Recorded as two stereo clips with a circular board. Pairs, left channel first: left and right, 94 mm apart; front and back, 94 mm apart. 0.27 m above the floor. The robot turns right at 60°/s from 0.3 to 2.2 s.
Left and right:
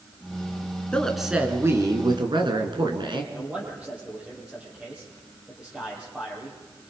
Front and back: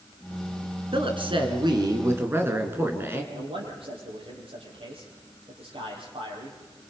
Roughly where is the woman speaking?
Behind.